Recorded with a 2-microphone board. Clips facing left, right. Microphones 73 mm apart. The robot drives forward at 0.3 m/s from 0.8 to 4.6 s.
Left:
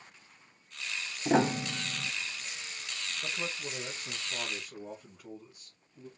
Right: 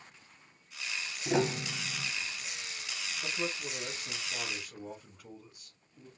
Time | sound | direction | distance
1.2 | a piano | 35° left (ahead or behind) | 0.9 m
3.2 | a man speaking | 5° left (ahead or behind) | 2.5 m